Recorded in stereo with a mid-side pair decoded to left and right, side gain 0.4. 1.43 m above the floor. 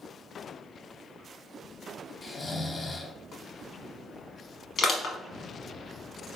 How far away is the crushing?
About 0.9 m.